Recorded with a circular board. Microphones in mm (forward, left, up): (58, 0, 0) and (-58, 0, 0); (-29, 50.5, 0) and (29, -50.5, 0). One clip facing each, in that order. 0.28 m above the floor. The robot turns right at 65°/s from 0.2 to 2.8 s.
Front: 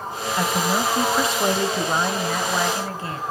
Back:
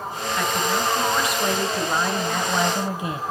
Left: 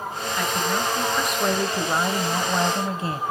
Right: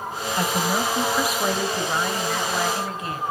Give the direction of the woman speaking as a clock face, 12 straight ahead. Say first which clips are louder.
Front 2 dB, right 2 dB; 1 o'clock.